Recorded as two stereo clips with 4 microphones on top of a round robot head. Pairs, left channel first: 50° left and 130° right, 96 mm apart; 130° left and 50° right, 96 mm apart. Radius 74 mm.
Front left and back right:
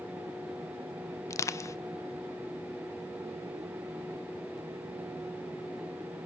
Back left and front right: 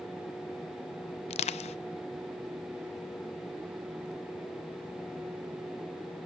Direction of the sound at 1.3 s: 110° left.